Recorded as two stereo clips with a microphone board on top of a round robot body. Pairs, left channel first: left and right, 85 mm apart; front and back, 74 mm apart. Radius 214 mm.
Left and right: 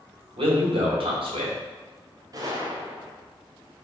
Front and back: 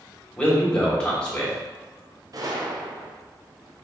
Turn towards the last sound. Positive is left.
turn(degrees=-140)